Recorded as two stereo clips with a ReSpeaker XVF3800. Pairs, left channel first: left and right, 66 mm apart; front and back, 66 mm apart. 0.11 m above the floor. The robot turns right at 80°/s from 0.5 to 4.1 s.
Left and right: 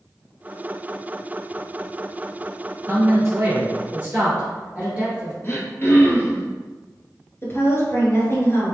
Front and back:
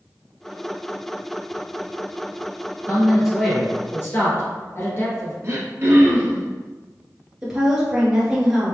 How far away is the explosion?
No explosion in this recording.